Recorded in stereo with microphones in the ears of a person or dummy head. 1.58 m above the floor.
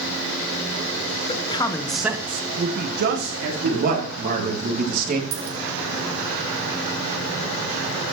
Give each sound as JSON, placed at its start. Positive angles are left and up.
{"t": 1.3, "sound": "a man speaking", "side_deg": 30, "distance_m": 0.9}
{"t": 3.6, "sound": "a man speaking", "side_deg": -45, "distance_m": 2.5}
{"t": 5.3, "sound": "a dropped coin", "side_deg": -45, "distance_m": 2.0}